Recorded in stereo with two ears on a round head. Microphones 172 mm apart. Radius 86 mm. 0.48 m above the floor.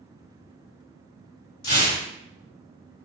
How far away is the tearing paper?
About 1.9 m.